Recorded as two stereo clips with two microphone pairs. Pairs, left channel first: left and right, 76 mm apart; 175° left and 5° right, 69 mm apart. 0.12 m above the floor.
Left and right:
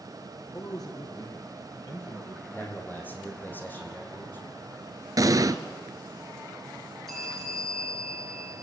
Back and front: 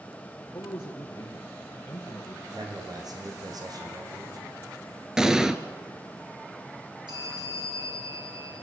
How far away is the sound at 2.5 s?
About 5.5 m.